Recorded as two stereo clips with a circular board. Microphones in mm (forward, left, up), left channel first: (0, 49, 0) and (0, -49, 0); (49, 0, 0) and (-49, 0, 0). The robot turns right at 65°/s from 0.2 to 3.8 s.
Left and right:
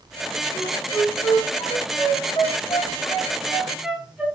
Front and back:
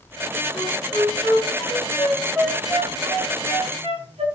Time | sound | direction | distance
0.5 | a flute | 20° right | 7 m